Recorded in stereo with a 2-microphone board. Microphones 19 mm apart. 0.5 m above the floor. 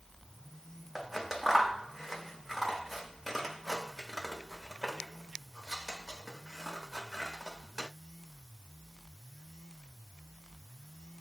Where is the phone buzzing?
I don't hear a phone buzzing.